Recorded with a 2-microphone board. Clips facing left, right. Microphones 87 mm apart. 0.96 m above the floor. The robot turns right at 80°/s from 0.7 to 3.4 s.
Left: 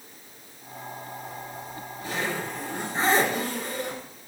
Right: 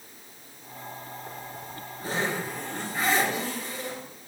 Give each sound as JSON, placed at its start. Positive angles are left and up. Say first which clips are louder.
{"t": 1.3, "sound": "a zipper", "louder": "left 2 dB", "azimuth_deg": -100, "distance_m": 6.0}